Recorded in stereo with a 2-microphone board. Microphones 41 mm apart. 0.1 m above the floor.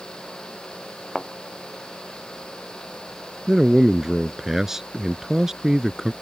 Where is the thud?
5° left (ahead or behind).